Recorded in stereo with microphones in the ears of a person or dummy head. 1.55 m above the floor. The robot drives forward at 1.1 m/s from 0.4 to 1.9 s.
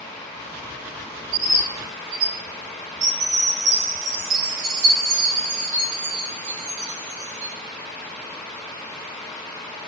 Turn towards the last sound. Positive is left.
turn(degrees=-70)  # may be behind; listen again after turning